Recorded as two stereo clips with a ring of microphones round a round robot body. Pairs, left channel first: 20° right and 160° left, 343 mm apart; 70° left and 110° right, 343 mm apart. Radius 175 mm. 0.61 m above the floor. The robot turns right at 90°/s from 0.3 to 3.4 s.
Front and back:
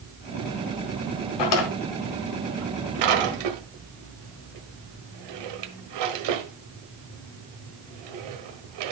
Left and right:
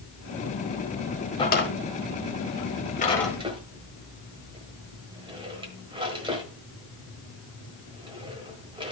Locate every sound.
1.4 s a drawer: 10° right, 1.5 m; by 8.9 s 170° left, 1.5 m